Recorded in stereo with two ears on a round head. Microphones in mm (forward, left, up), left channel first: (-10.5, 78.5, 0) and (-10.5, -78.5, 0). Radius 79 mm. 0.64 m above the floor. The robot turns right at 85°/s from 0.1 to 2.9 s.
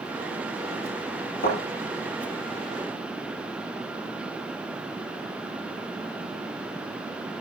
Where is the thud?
55° left (ahead or behind), 8 m; by 1.6 s 45° left (ahead or behind), 8 m.